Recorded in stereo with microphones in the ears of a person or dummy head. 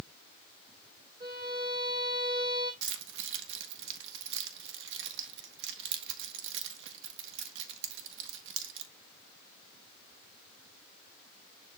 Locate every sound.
1.2 s a violin: 20° right (ahead or behind), 3.5 m
2.8 s keys jangling: 65° right (ahead or behind), 1.2 m